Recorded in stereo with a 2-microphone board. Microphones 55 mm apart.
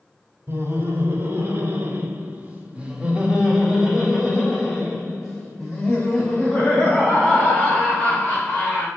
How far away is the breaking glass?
No breaking glass in this recording.